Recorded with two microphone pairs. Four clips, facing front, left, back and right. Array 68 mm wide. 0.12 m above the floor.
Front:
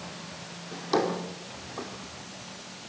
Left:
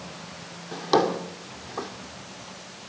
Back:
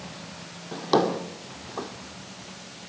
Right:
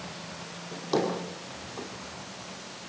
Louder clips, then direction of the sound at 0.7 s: Left 6 dB, back 4 dB; 130° left.